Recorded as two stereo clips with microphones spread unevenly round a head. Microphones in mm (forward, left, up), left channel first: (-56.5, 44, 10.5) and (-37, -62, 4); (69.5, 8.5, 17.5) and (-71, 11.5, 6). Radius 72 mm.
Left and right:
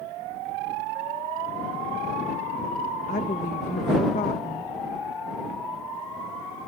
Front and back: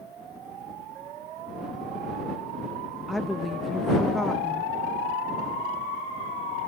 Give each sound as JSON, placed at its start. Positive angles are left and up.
{"t": 3.1, "sound": "a woman speaking", "azimuth_deg": 90}